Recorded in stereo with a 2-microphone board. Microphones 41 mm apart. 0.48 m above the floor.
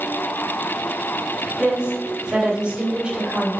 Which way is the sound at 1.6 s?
25° right (ahead or behind).